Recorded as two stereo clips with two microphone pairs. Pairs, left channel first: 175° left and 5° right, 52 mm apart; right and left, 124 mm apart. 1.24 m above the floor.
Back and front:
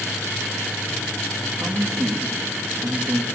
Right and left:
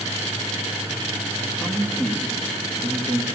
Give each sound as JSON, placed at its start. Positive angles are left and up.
{"t": 1.6, "sound": "a man speaking", "azimuth_deg": 5, "distance_m": 2.0}